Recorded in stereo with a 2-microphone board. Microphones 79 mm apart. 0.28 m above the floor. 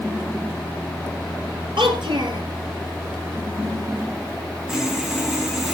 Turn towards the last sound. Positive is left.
turn(degrees=-5)  # may be behind; listen again after turning